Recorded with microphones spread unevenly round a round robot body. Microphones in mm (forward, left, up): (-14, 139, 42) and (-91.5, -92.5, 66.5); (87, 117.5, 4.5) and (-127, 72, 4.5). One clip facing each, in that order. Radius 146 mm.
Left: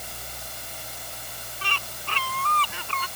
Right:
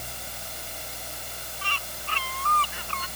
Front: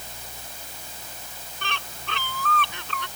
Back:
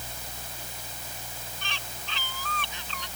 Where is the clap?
No clap in this recording.